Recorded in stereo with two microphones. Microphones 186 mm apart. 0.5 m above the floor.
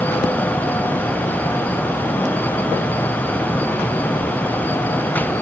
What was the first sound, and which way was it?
Only background noise.